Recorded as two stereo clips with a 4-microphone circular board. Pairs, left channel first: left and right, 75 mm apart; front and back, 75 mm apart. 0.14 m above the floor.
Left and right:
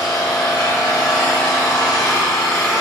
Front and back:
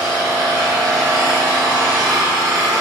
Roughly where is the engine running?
Behind.